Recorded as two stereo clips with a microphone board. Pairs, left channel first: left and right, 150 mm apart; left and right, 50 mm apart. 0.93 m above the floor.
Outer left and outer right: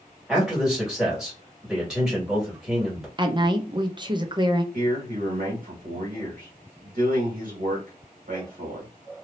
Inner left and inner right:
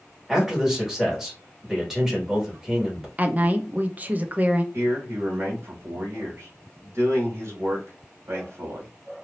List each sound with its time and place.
0.3 s a man speaking: 5° right (ahead or behind), 1.8 m
3.2 s a woman speaking: 30° right (ahead or behind), 0.6 m
4.7 s a man speaking: 70° right (ahead or behind), 1.8 m